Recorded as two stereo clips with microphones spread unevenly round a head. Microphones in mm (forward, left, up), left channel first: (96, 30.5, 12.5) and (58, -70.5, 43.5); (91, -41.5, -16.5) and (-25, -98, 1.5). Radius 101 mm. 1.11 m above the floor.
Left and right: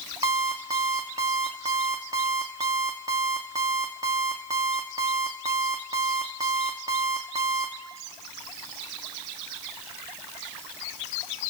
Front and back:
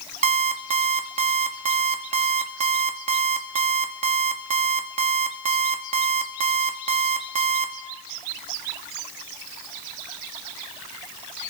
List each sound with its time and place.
0.2 s an alarm clock: 170° right, 0.8 m